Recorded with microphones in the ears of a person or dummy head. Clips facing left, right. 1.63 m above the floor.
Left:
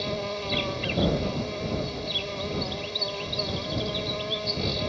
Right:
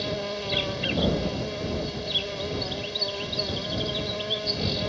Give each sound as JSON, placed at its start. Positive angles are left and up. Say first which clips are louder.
{"t": 0.0, "sound": "an insect", "louder": "even", "side_deg": -10}